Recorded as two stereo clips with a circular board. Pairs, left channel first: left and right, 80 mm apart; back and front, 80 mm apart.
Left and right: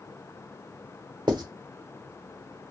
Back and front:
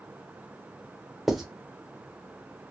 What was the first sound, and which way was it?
Writing, 90° right.